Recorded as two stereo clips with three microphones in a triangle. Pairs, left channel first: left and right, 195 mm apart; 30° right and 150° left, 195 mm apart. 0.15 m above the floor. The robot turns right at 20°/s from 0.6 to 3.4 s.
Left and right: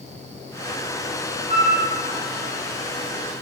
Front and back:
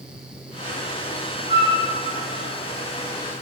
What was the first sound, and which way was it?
A flute, 35° right.